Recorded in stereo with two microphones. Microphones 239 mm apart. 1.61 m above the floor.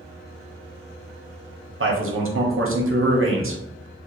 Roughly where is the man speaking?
Right.